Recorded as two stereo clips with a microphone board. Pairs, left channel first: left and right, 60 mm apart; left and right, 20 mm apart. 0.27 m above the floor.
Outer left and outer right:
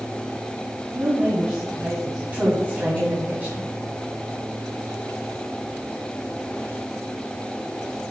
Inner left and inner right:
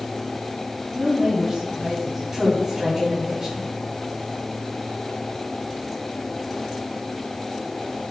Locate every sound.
0.9 s a woman speaking: 25° right (ahead or behind), 3.5 m
2.3 s a woman speaking: 25° right (ahead or behind), 2.5 m